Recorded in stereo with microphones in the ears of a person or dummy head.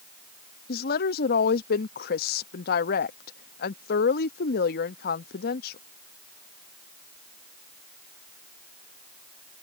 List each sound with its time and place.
0.7 s a woman speaking: 60° left (ahead or behind)